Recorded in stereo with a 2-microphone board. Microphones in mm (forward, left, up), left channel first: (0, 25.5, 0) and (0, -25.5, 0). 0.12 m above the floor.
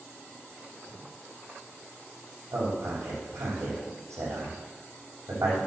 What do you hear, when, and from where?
2.5 s a man speaking: 75° right (ahead or behind), 6.5 m